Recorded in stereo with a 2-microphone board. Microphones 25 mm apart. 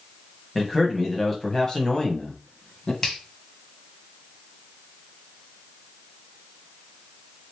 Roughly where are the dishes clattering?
I don't hear dishes clattering.